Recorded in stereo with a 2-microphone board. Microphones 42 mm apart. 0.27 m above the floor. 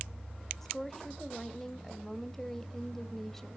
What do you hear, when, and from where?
0.6 s a woman speaking: 10° left (ahead or behind), 0.9 m